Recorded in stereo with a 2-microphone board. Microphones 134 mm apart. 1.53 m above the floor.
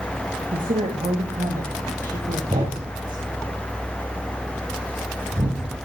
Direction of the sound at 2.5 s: 55° right (ahead or behind).